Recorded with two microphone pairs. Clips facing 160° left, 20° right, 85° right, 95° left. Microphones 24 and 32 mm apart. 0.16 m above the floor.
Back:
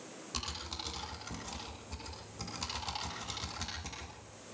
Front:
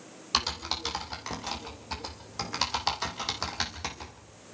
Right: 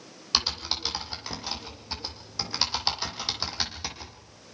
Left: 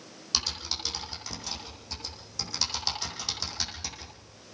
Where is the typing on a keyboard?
25° right, 4 m.